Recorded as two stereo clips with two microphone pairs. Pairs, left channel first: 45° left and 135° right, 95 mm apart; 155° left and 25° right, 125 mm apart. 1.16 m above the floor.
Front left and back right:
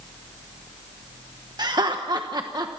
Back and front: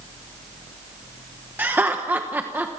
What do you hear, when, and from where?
1.6 s laughter: 100° right, 1.1 m